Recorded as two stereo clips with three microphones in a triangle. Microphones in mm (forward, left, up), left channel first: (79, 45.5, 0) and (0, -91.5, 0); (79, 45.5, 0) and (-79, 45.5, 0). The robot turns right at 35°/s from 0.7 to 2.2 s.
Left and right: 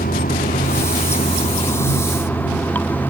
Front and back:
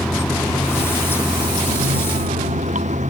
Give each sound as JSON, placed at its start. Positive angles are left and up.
{"t": 0.0, "sound": "running water", "azimuth_deg": 85}